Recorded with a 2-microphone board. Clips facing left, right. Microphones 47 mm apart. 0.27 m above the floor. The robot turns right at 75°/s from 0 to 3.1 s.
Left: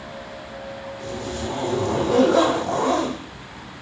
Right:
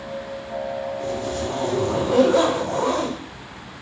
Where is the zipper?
25° right (ahead or behind), 6 m; by 3.8 s 50° left (ahead or behind), 6 m.